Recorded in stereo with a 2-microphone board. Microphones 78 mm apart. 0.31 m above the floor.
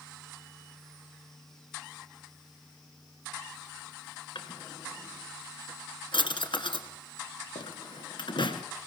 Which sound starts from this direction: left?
A drawer, at 4.3 s.